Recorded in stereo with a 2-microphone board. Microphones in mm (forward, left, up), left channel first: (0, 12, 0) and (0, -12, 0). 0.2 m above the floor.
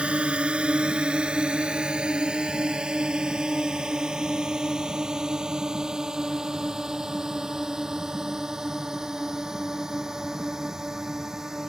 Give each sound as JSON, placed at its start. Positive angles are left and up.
{"t": 0.0, "sound": "a drone", "side_deg": -55}